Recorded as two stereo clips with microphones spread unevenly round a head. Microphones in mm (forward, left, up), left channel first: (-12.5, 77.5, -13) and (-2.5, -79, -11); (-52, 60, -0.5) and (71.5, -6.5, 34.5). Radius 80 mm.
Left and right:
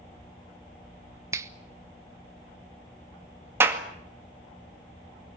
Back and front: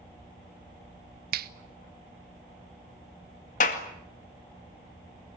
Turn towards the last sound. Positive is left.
turn(degrees=-160)